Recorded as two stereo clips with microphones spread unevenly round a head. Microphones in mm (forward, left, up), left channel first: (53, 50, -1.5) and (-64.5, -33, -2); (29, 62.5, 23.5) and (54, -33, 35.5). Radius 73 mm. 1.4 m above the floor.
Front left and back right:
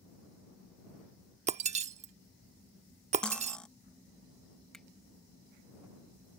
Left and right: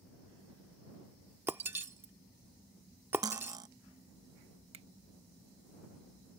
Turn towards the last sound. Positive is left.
turn(degrees=-50)